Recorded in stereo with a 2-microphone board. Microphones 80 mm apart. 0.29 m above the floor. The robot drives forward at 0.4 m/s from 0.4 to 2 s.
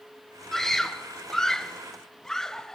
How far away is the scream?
About 1.7 m.